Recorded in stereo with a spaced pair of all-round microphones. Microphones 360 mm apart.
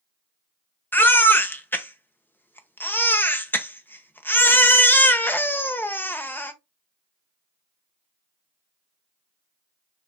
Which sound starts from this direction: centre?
A baby crying, at 0.9 s.